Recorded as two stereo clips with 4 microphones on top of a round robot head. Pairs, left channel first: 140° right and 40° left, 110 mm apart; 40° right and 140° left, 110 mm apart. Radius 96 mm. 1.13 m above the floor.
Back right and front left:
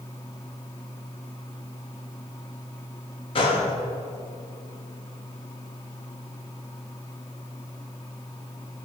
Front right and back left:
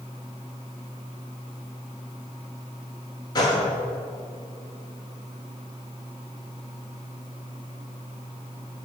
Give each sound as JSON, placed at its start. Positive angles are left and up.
{"t": 3.4, "sound": "a gunshot", "azimuth_deg": -95, "distance_m": 1.5}